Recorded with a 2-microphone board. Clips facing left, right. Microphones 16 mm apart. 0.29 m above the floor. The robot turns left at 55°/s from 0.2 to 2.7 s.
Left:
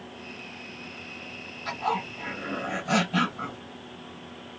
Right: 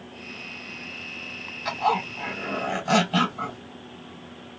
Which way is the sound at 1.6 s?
80° right.